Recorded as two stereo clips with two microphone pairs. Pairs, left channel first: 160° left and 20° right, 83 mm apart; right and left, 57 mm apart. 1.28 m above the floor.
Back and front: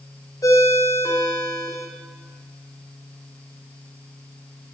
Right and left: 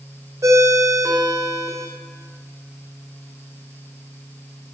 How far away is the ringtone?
About 3 m.